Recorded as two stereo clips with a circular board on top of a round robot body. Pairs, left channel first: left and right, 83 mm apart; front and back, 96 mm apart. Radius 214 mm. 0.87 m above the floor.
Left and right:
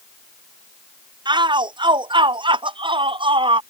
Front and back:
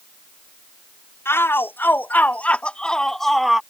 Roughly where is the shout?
Ahead right.